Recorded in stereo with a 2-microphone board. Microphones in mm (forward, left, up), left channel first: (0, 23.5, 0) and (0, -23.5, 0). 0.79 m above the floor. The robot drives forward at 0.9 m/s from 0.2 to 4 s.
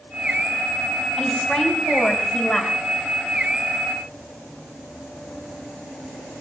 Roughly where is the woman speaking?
Centre.